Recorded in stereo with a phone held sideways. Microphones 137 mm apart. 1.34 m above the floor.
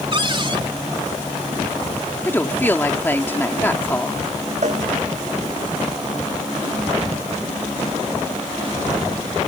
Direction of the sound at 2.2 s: 15° left (ahead or behind).